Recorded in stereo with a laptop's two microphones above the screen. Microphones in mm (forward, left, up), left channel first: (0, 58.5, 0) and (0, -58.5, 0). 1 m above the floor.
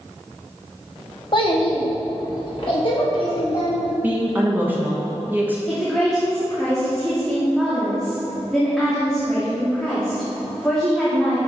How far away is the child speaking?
About 1.3 m.